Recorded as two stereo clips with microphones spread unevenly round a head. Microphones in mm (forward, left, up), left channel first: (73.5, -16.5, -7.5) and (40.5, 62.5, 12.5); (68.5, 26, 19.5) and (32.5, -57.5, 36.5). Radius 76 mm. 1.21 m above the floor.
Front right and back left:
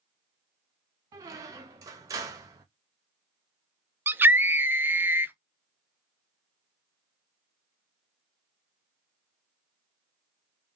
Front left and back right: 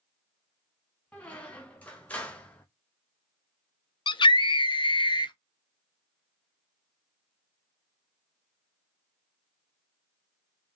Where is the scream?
45° left, 1.0 m.